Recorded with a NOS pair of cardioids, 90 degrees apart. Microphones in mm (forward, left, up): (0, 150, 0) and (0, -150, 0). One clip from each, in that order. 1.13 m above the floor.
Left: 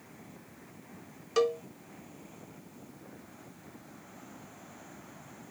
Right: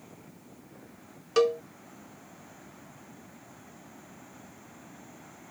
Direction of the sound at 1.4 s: 25° right.